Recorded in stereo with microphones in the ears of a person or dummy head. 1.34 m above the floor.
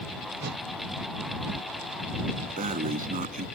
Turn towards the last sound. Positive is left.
turn(degrees=-40)  # may be behind; listen again after turning